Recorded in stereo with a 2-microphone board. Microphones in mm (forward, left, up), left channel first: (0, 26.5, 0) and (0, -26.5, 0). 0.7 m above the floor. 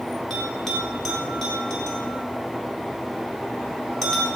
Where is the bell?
10° left (ahead or behind), 4 m.